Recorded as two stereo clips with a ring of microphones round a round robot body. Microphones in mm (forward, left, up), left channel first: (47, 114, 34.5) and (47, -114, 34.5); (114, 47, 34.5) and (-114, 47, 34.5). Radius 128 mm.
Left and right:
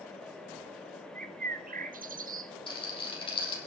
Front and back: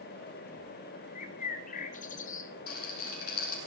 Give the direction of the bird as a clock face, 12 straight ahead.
2 o'clock.